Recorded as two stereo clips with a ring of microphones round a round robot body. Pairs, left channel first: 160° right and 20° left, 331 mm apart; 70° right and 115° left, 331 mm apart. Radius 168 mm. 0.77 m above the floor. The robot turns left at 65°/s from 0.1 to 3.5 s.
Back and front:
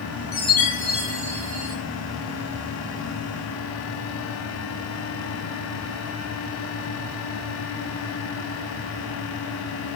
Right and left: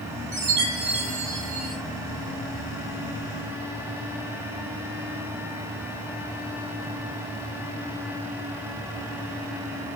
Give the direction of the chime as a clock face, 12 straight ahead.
7 o'clock.